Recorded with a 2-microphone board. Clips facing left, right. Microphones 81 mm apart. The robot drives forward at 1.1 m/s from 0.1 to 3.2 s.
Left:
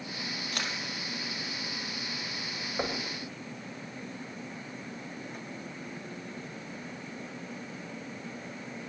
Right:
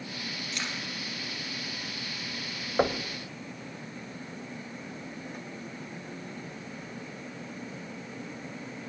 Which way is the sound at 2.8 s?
35° right (ahead or behind).